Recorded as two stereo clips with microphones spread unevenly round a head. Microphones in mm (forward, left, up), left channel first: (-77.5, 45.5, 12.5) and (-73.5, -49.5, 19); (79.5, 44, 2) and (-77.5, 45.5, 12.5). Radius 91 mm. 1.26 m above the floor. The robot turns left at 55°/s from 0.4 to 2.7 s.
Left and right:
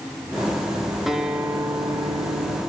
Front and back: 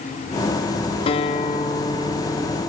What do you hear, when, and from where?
1.1 s a guitar: 5° left, 0.5 m; by 2.6 s 80° right, 0.5 m